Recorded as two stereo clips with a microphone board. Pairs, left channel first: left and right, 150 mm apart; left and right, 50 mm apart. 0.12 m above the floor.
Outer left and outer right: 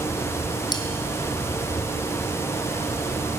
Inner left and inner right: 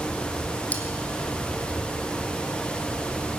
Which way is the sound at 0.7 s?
30° left (ahead or behind).